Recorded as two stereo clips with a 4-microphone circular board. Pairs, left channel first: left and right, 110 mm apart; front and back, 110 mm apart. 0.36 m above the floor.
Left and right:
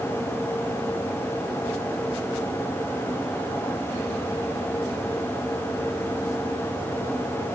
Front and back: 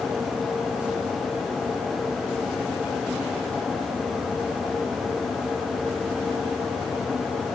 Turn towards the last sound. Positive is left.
No sound to turn to.